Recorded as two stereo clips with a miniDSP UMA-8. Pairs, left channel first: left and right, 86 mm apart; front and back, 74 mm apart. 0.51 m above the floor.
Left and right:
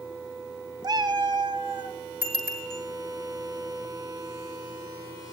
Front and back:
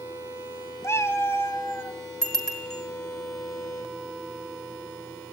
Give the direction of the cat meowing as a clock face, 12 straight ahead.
2 o'clock.